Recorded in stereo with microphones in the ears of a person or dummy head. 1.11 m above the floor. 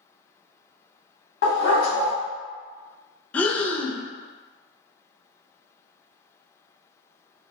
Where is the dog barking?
60° left (ahead or behind), 1.0 m.